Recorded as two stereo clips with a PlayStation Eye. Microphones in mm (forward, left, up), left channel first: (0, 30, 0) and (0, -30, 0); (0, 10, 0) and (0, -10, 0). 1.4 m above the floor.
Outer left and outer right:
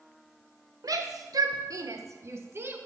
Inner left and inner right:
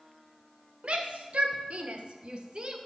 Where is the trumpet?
No trumpet in this recording.